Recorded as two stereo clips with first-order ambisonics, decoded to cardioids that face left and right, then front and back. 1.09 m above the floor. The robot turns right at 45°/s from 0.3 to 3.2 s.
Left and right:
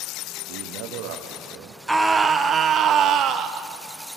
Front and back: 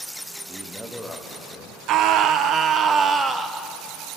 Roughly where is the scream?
Behind.